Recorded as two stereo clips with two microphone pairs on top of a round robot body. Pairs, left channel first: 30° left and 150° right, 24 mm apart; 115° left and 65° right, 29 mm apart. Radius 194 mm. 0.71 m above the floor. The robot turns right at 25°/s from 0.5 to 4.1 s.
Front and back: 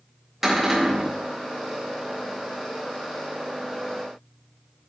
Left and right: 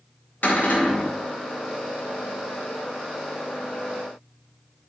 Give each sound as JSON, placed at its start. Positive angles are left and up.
{"t": 0.4, "sound": "a cupboard door", "azimuth_deg": 140, "distance_m": 2.5}